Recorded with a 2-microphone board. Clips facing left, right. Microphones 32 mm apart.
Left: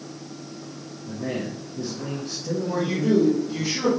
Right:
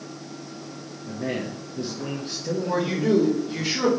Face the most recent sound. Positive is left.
turn(degrees=-80)